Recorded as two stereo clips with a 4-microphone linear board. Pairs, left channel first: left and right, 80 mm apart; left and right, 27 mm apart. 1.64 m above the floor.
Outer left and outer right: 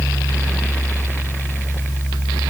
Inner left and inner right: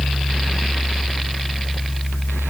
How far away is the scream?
I don't hear a scream.